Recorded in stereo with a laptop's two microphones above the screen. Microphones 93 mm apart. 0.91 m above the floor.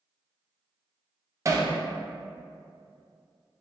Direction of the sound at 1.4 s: 35° right (ahead or behind).